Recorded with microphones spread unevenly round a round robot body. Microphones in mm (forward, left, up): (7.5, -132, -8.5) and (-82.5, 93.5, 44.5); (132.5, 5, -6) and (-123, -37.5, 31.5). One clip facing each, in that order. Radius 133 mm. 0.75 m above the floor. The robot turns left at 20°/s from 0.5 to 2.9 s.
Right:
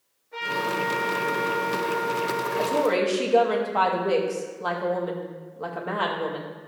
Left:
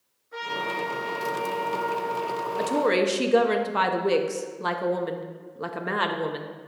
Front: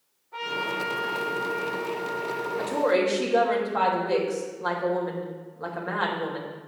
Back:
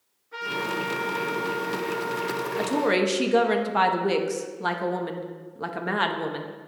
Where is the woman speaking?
175° left, 0.9 m; by 6.5 s 170° left, 0.9 m.